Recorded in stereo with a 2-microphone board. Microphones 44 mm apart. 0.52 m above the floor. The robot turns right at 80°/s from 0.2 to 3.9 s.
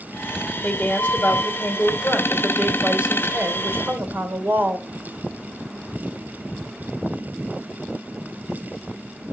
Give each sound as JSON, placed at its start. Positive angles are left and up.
{"t": 0.6, "sound": "a woman speaking", "azimuth_deg": 25, "distance_m": 2.0}